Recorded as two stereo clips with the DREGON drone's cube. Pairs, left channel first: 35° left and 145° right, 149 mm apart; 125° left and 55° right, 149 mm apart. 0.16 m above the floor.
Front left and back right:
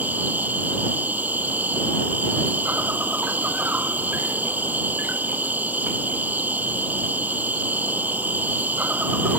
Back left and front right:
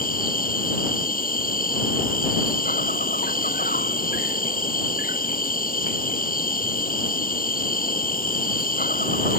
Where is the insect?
135° left.